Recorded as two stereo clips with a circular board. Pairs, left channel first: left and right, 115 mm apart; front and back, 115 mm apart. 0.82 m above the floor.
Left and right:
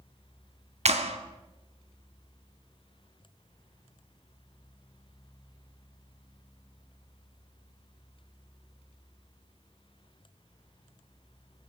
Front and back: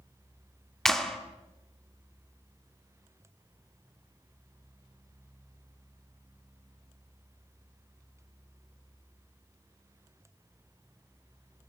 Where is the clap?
85° right, 2 m.